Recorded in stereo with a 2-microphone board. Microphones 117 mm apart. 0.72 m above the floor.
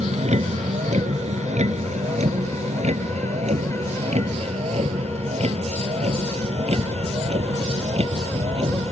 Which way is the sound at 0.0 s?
80° right.